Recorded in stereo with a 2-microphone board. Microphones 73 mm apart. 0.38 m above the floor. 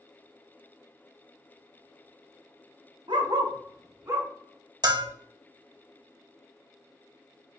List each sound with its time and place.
3.1 s a dog barking: 80° right, 0.5 m; by 4.3 s 30° right (ahead or behind), 1.4 m
4.8 s a bell: 65° right (ahead or behind), 0.5 m